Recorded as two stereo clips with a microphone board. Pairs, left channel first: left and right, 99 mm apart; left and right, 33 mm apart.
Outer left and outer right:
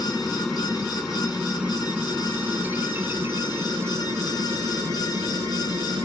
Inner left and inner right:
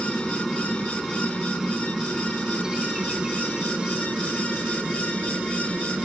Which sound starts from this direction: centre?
A helicopter, at 0.0 s.